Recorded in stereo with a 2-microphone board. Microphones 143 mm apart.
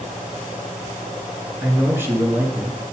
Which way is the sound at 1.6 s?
15° right (ahead or behind).